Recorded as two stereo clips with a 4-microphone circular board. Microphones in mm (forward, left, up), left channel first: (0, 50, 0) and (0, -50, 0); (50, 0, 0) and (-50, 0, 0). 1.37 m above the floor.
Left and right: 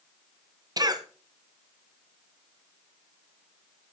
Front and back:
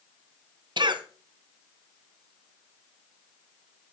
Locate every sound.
0.8 s a cough: 140° right, 1.1 m